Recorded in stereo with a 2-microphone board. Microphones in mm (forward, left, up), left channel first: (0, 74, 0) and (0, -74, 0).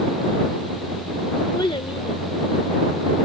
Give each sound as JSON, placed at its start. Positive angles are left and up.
{"t": 1.5, "sound": "a child speaking", "side_deg": 30}